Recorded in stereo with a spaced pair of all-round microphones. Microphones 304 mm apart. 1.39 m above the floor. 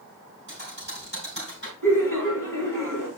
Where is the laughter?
80° right, 4 m.